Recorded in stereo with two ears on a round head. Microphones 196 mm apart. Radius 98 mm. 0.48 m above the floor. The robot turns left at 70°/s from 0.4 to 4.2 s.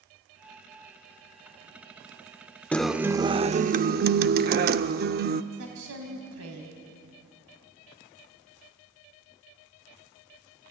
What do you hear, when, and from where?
2.7 s a guitar: 10° left, 0.6 m; by 5.4 s 95° right, 0.6 m
5.5 s a woman speaking: 75° right (ahead or behind), 3 m